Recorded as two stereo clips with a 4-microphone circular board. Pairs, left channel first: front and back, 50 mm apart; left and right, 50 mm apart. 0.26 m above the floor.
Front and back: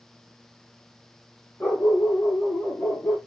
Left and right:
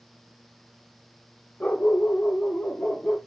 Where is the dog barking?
35° left, 3 m.